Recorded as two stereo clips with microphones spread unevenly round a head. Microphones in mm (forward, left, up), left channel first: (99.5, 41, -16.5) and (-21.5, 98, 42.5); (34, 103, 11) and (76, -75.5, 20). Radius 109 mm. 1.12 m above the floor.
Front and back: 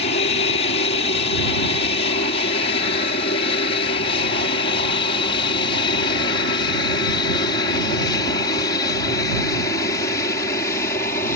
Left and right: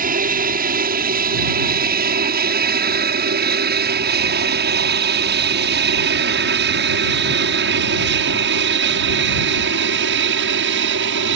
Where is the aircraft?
40° right; by 11.4 s 85° right.